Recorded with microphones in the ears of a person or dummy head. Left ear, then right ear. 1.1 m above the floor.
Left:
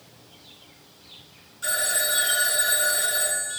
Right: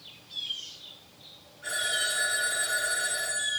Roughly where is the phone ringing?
Left.